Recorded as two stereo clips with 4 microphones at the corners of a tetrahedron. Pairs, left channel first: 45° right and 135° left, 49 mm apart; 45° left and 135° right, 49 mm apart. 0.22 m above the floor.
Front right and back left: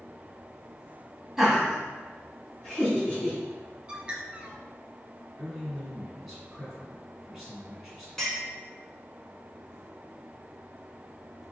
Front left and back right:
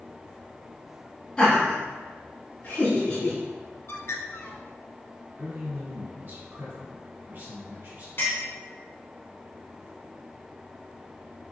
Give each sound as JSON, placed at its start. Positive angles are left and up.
{"t": 1.4, "sound": "laughter", "azimuth_deg": 70, "distance_m": 1.0}
{"t": 3.9, "sound": "a bird", "azimuth_deg": 70, "distance_m": 0.6}
{"t": 5.4, "sound": "a man speaking", "azimuth_deg": -140, "distance_m": 1.9}
{"t": 8.2, "sound": "a clink", "azimuth_deg": 35, "distance_m": 1.6}